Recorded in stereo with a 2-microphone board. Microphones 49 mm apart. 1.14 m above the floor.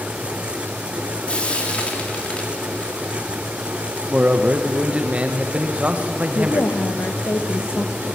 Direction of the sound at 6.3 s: 65° left (ahead or behind).